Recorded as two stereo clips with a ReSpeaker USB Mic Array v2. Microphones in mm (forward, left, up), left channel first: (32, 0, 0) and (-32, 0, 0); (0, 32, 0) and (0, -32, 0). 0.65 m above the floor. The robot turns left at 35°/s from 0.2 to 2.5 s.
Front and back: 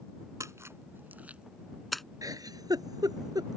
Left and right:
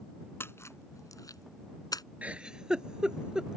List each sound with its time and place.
0.4 s a splash: 140° left; by 2.0 s 85° left
2.2 s a giggle: 155° right; by 3.6 s 165° right